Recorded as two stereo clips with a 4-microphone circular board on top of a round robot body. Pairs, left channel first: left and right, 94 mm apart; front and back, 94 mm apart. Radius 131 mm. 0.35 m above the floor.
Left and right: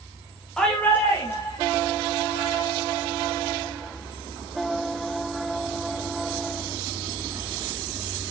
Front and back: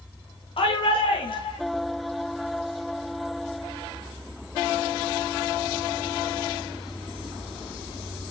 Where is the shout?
5° left, 1.9 m; by 1.6 s 25° left, 3 m.